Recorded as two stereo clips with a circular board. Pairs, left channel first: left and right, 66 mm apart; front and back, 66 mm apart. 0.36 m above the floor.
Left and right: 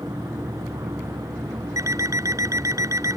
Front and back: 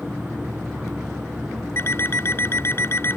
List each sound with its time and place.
0.0 s an insect: 105° right
1.8 s an alarm clock: 55° right